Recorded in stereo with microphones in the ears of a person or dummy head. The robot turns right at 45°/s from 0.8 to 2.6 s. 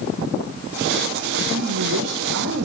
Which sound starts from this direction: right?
A woman speaking, at 1.5 s.